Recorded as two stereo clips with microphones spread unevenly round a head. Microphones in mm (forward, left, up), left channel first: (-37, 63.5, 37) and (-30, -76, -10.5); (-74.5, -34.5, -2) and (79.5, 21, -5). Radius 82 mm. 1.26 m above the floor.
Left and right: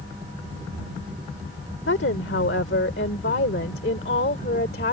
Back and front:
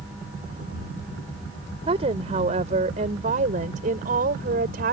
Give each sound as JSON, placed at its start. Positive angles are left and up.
{"t": 1.9, "sound": "a woman speaking", "azimuth_deg": 80}